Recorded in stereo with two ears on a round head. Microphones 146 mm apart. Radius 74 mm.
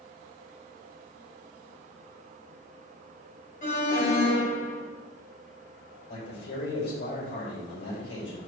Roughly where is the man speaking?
Left.